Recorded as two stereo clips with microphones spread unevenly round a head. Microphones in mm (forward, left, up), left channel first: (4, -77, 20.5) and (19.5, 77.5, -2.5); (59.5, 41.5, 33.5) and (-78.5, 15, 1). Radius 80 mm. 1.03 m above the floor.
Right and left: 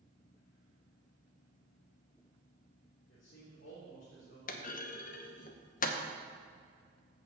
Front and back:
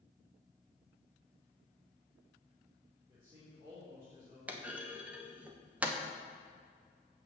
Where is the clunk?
110° right, 0.9 m.